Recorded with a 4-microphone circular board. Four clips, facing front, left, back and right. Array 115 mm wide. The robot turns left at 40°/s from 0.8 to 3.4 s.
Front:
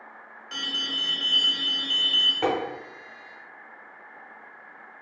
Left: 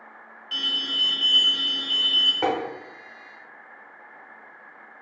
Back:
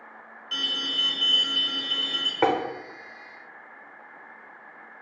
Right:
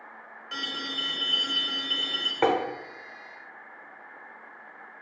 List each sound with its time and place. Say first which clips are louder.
0.5 s an alarm: left 1 dB, back 1 dB; 65° right, 0.9 m; by 2.3 s 125° right, 0.9 m
2.4 s tapping: right 1 dB, back 3 dB; 150° right, 0.7 m; by 2.5 s 155° right, 0.7 m